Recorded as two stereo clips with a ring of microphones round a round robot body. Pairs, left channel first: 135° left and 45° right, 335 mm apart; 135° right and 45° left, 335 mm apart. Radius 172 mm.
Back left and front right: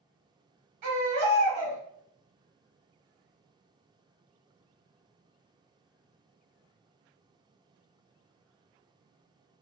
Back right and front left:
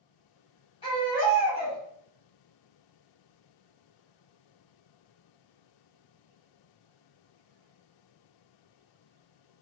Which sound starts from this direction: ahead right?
A baby crying, at 0.8 s.